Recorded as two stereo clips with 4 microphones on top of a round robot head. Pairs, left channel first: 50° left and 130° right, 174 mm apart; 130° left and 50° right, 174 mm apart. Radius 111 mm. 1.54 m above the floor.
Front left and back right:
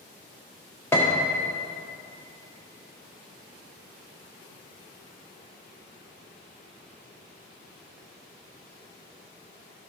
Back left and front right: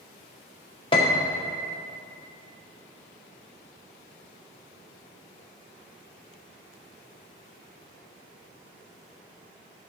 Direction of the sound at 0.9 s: 115° left.